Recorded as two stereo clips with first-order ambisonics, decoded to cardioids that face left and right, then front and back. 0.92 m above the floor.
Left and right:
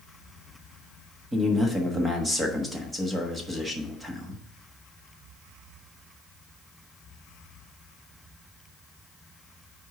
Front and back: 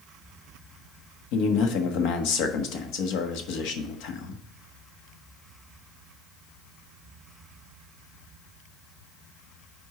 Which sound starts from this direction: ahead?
A man speaking, at 1.3 s.